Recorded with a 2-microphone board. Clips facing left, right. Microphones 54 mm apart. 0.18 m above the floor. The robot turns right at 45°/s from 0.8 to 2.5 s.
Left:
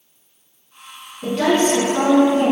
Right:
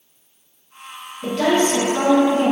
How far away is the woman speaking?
About 1.7 m.